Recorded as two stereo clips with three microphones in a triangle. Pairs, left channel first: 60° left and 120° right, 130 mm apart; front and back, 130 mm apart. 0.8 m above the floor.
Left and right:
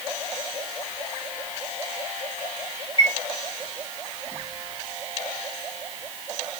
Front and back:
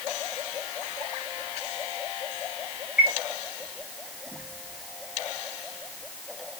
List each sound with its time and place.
3.0 s a chime: 100° left, 2.5 m